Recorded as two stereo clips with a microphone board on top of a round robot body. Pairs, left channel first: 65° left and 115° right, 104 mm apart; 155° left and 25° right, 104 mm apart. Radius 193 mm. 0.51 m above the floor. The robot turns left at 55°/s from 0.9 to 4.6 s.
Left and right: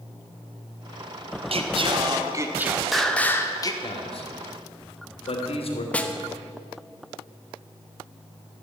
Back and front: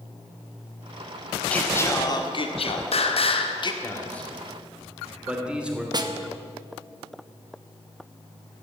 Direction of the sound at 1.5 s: 125° right.